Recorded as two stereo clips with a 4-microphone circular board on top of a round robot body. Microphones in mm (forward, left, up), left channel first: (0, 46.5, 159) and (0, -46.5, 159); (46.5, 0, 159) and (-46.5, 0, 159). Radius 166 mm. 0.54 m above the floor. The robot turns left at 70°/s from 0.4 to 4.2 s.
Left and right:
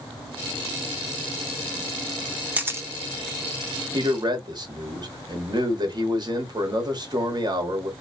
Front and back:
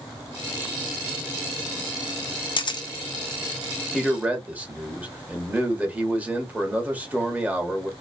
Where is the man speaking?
95° right, 1.6 m; by 7.9 s 110° right, 1.6 m.